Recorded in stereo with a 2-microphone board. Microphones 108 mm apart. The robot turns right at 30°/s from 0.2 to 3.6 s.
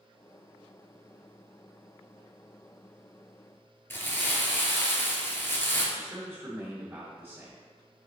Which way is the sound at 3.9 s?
20° left (ahead or behind).